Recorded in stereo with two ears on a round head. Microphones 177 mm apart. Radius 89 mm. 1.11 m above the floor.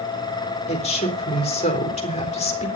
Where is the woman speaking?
35° left (ahead or behind), 3.5 m.